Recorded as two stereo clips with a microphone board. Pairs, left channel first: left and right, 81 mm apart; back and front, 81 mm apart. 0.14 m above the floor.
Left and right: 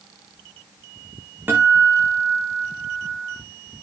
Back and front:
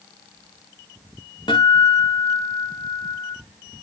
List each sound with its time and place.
1.5 s a guitar: 155° right, 5.5 m